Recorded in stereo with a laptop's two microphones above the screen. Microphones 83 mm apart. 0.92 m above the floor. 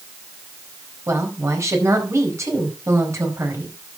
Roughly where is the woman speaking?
Right.